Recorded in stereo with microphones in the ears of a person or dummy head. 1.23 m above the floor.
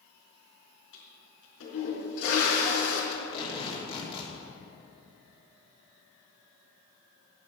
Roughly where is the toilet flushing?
Left.